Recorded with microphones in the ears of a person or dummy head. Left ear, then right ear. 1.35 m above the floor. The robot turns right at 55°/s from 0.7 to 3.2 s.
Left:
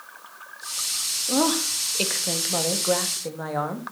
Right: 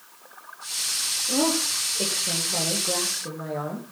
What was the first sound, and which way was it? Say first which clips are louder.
A woman speaking: left 2 dB; 35° left.